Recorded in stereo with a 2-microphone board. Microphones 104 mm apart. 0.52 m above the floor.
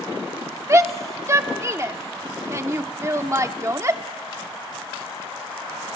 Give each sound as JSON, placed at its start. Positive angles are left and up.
{"t": 0.7, "sound": "a shout", "side_deg": -30, "distance_m": 0.8}